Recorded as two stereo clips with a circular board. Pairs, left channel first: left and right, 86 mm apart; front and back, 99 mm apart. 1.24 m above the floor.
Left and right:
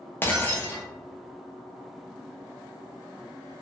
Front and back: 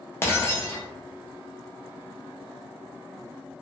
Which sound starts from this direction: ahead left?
Breaking glass, at 0.2 s.